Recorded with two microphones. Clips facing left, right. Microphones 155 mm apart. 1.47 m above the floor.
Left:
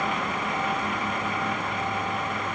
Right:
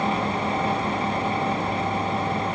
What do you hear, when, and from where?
Only background noise.